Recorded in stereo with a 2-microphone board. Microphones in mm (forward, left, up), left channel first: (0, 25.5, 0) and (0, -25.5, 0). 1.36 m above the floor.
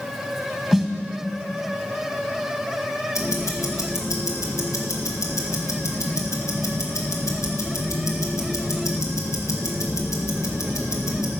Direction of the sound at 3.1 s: 80° left.